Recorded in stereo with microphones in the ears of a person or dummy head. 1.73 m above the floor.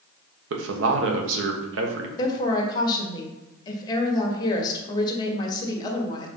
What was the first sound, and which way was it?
A man speaking, 80° right.